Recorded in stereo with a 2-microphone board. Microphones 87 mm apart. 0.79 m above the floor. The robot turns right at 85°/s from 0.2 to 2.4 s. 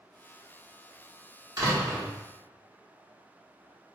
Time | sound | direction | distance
1.6 | a door slam | 55° right | 1.1 m